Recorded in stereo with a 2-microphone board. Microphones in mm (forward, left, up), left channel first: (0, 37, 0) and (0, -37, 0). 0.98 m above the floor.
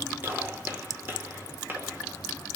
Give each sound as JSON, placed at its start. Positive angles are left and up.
{"t": 0.2, "sound": "a gunshot", "side_deg": -25, "distance_m": 1.7}